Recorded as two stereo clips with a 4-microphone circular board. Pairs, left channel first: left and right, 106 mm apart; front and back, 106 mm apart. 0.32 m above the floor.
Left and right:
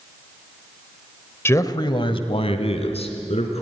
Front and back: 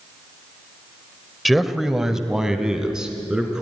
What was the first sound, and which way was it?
A man speaking, 90° left.